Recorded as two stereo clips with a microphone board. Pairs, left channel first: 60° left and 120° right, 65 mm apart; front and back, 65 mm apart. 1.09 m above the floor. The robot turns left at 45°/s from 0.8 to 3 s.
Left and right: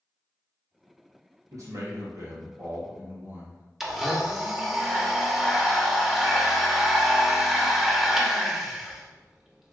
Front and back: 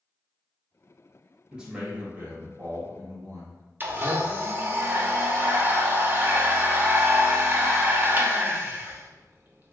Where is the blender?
155° left, 0.6 m.